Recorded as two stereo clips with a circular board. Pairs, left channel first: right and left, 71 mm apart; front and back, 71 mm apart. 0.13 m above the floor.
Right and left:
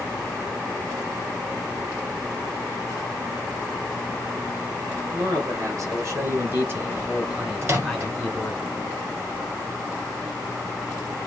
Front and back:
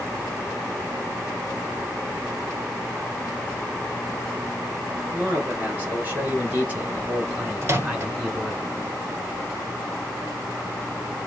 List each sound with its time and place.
5.1 s a man speaking: 115° left, 3 m; by 8.6 s 105° right, 1.7 m
7.6 s a microwave: 130° left, 2.0 m